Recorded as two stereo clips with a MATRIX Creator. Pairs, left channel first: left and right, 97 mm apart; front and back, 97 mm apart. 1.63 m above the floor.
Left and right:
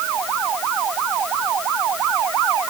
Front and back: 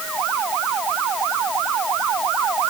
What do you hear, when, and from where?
Only background noise.